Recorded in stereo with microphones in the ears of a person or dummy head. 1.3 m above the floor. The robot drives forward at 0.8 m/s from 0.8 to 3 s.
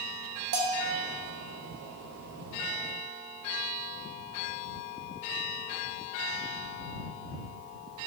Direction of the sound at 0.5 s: 70° right (ahead or behind).